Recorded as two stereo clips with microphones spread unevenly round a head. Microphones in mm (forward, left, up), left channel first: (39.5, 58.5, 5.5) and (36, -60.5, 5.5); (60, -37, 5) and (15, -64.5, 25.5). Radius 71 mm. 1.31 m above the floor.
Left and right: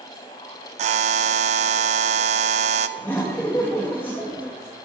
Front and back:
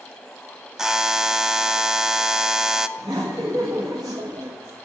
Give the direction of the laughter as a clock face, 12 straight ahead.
7 o'clock.